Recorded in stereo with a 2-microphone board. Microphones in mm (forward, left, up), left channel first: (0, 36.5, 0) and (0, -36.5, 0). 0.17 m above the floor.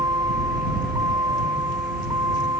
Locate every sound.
0.0 s a vehicle: 55° right (ahead or behind)